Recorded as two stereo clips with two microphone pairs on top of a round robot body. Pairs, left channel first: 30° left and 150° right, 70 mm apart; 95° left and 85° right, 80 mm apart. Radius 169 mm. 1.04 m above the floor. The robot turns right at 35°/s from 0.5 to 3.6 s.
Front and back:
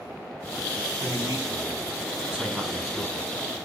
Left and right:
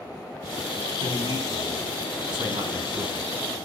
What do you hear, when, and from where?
1.0 s a man speaking: 120° right, 4.5 m; by 3.3 s 40° right, 4.5 m